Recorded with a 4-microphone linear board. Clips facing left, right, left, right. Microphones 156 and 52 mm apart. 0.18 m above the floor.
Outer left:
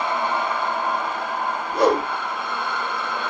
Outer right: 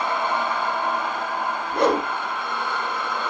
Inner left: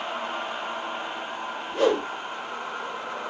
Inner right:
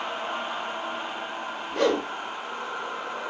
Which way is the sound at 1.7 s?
65° right (ahead or behind).